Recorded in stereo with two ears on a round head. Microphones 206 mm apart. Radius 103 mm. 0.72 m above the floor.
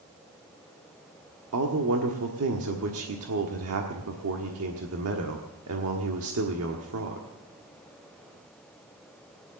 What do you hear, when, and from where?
1.5 s a man speaking: 70° right (ahead or behind), 1.4 m